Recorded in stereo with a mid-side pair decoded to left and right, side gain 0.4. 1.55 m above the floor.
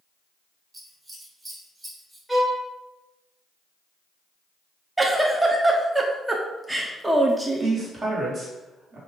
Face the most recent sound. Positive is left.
turn(degrees=-55)